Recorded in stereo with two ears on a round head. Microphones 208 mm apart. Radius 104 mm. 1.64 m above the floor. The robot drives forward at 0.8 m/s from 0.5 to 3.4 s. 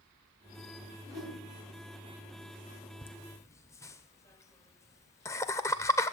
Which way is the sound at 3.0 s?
10° left (ahead or behind).